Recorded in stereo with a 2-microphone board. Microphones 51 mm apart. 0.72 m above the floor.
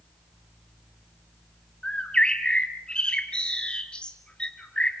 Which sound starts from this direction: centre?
A bird, at 1.8 s.